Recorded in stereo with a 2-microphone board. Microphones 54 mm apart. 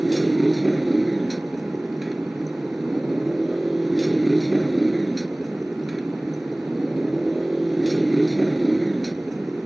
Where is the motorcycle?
Centre (ahead or behind).